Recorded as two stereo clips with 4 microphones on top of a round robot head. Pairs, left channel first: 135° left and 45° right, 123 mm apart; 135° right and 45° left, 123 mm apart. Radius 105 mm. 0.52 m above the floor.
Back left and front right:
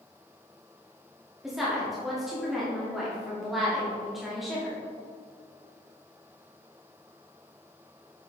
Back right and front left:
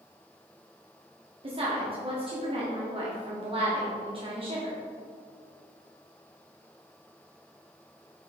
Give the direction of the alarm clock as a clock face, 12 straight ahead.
No alarm clock in this recording.